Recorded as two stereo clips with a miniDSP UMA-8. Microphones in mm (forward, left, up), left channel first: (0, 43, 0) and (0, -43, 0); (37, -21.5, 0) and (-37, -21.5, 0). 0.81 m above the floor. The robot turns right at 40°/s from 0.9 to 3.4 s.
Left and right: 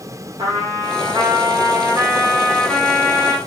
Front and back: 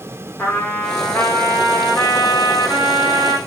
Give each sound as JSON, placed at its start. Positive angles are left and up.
{"t": 0.4, "sound": "a trumpet", "azimuth_deg": -75, "distance_m": 0.8}